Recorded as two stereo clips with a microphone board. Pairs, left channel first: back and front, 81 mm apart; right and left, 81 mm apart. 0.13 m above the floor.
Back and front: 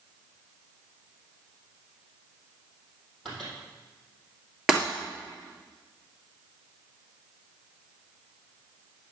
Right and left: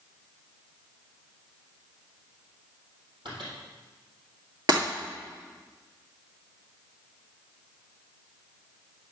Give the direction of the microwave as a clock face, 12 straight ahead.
9 o'clock.